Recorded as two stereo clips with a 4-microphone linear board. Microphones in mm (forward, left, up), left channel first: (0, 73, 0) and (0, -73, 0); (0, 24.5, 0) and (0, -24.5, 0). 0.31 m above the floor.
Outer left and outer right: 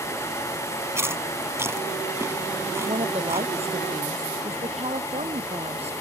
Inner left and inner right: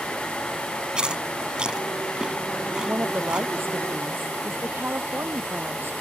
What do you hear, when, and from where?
0.9 s chewing: 15° right (ahead or behind)
2.8 s a woman speaking: 45° right (ahead or behind)